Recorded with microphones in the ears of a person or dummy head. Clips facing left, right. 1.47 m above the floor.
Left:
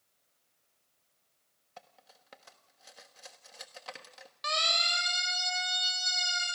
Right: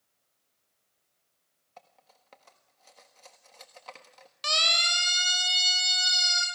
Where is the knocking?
No knocking in this recording.